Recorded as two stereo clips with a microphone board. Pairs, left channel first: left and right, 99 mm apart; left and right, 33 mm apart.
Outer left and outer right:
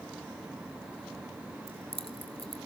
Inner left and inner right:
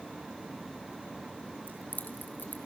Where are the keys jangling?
70° left (ahead or behind), 2.0 m.